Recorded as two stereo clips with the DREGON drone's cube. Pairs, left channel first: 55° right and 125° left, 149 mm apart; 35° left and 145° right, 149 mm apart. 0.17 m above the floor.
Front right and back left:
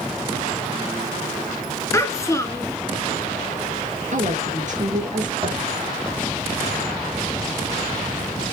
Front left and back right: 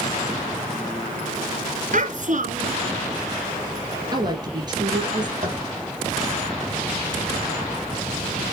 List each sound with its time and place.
1.9 s a child speaking: 125° right, 1.9 m
4.1 s a woman speaking: 155° left, 3 m
5.4 s tapping: straight behind, 4 m